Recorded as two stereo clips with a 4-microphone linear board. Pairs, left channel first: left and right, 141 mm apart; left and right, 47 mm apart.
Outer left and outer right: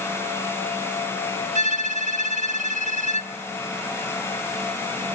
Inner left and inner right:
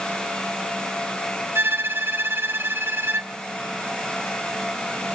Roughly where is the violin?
Right.